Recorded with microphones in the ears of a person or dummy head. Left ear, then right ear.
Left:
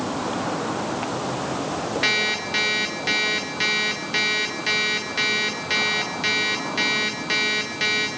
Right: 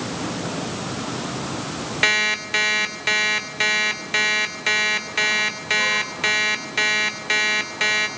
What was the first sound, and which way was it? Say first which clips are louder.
An alarm clock: right 4 dB; 25° right (ahead or behind).